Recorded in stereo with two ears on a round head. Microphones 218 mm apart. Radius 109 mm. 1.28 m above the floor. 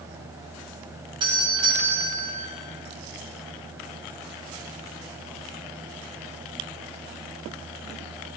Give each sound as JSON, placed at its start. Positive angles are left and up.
{"t": 1.2, "sound": "a doorbell", "side_deg": -20, "distance_m": 6.5}